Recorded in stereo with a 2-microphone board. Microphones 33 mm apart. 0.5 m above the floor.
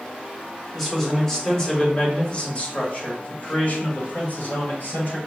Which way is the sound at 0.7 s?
5° left (ahead or behind).